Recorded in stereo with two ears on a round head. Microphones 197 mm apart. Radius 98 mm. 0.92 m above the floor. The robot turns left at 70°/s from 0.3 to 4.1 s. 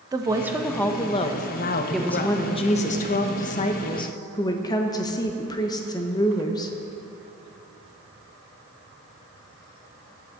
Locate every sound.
0.1 s a woman speaking: 155° right, 0.6 m; by 2.4 s 60° left, 0.6 m
1.9 s a woman speaking: straight behind, 0.7 m; by 6.8 s 30° left, 0.7 m